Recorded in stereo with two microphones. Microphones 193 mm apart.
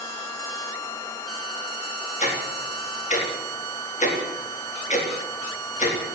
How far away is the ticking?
About 4 m.